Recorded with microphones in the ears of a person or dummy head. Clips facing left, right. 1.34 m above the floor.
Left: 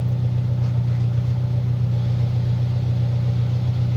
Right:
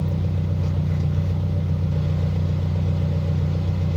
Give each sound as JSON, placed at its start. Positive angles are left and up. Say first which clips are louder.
{"t": 0.0, "sound": "an engine running", "louder": "even", "side_deg": -60, "distance_m": 1.5}